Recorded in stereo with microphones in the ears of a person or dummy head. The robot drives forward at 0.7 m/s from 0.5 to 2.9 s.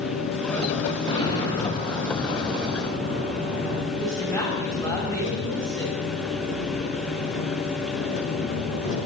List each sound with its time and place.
0.0 s an engine running: 75° left (ahead or behind), 2 m; by 9.1 s 45° left (ahead or behind), 3 m
1.1 s an explosion: 25° left (ahead or behind), 3.5 m; by 3.9 s 20° left (ahead or behind), 5 m
4.0 s a woman speaking: 10° left (ahead or behind), 8 m